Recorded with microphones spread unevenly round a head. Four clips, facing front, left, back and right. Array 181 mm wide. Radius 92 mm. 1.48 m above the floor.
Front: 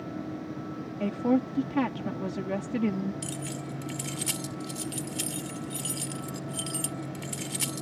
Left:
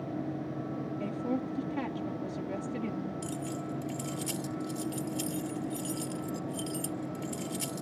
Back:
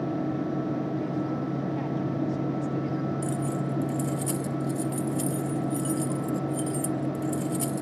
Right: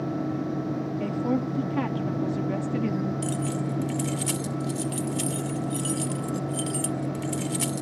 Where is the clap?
I don't hear a clap.